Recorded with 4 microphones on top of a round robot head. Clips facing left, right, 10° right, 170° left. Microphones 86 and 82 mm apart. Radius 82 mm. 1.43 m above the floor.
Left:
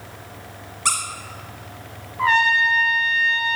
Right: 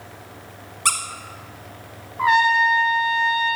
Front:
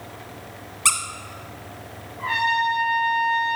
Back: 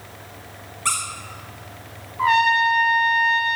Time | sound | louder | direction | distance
0.8 | a squeak | even, even | 35° right | 0.8 m
2.2 | a trumpet | right 1 dB, back 5 dB | 165° right | 1.2 m